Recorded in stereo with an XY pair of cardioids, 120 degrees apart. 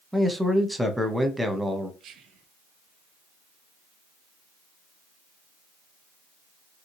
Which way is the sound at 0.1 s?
5° right.